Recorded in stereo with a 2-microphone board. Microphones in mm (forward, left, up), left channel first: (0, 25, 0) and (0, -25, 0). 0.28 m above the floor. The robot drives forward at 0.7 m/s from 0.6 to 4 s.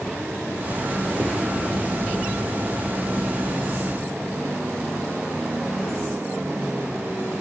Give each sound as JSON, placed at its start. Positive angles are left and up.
{"t": 1.2, "sound": "a whoosh", "side_deg": 65, "distance_m": 4.0}